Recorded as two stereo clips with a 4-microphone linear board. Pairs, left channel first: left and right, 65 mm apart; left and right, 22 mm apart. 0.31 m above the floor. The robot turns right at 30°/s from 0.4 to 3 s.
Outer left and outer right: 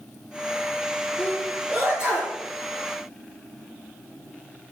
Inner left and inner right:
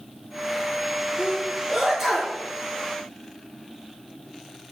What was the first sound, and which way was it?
A sneeze, 40° right (ahead or behind).